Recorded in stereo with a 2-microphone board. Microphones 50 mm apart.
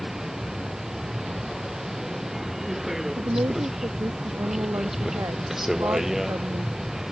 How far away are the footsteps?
No footsteps in this recording.